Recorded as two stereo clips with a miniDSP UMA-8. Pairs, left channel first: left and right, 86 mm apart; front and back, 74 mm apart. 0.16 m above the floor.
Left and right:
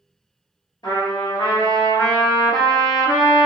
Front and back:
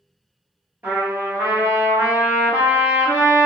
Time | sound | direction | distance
0.8 | a trumpet | 115° left | 1.2 m